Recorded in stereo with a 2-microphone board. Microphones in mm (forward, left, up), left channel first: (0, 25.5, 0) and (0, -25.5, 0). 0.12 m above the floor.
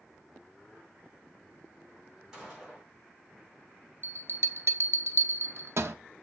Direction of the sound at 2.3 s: 15° right (ahead or behind).